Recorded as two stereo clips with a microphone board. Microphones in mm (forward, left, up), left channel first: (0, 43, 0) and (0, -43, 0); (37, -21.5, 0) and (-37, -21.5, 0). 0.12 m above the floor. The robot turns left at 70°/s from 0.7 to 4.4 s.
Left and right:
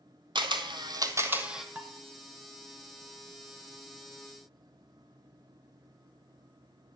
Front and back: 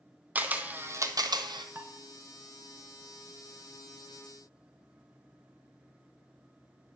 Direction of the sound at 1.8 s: 140° right.